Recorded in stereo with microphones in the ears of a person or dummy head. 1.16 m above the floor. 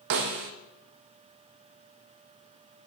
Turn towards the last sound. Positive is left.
turn(degrees=-45)  # may be behind; listen again after turning